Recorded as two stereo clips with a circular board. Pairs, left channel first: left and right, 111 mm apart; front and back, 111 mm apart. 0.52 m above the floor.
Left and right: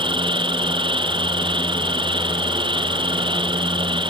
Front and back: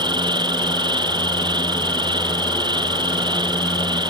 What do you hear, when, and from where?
0.0 s an insect: 135° right